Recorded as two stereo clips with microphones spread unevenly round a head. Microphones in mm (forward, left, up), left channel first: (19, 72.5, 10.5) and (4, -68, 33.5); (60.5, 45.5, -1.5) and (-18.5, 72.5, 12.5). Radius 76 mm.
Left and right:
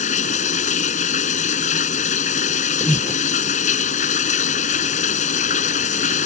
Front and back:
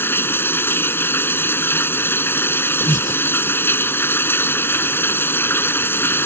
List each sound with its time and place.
0.0 s running water: 45° left
2.8 s breathing: 10° left